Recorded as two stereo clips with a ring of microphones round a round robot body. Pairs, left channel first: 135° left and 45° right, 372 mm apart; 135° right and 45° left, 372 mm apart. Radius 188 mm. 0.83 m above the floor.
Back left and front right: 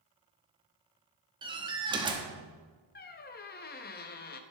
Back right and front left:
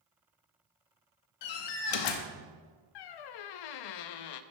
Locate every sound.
1.4 s a door slam: 120° right, 1.1 m
3.0 s a squeak: 160° right, 0.6 m